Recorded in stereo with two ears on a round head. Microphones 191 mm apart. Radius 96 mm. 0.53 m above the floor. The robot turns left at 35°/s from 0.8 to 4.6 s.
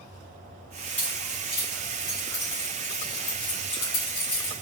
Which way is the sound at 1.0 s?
10° left (ahead or behind).